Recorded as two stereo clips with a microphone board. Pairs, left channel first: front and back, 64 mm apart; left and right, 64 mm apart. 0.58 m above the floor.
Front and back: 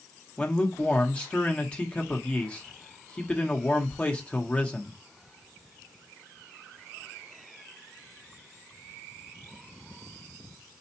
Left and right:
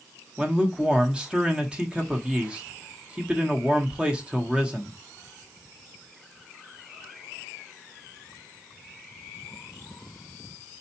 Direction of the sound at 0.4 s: 40° right.